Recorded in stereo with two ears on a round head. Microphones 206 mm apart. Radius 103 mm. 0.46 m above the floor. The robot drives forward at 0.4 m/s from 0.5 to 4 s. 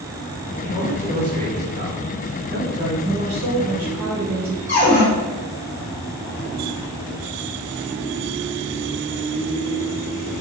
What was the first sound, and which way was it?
A man speaking, 35° right (ahead or behind).